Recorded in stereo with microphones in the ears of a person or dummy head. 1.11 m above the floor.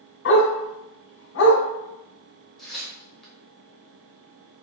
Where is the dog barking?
65° left (ahead or behind), 1.4 m.